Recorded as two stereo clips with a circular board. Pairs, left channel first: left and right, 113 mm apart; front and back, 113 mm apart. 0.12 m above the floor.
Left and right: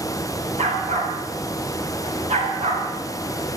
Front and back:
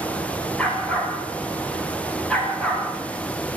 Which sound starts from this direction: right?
A dog barking, at 0.6 s.